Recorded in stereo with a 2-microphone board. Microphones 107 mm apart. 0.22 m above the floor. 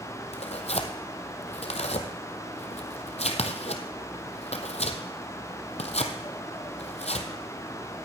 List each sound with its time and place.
0.3 s tearing paper: 80° left, 1.3 m